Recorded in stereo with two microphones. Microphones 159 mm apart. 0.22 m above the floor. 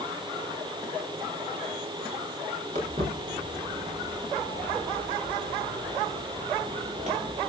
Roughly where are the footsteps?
Right.